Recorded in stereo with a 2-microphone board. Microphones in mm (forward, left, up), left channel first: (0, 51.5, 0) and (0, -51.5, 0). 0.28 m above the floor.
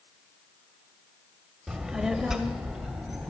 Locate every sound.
1.7 s a child speaking: 5° right (ahead or behind), 0.7 m